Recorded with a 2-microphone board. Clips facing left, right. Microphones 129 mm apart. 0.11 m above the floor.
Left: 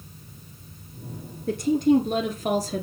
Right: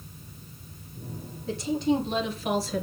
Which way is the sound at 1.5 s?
50° left (ahead or behind).